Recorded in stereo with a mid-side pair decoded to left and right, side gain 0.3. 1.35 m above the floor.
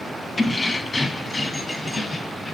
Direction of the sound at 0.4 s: 35° left.